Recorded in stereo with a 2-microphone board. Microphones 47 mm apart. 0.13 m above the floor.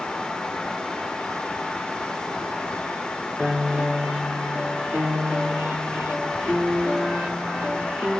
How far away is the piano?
About 1.6 m.